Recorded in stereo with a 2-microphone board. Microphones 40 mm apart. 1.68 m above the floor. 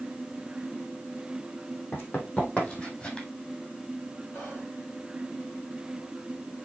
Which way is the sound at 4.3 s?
60° left (ahead or behind).